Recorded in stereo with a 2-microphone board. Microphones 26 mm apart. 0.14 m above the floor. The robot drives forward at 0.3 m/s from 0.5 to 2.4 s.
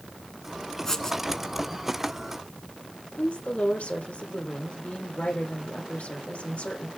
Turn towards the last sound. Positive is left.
turn(degrees=70)  # may be behind; listen again after turning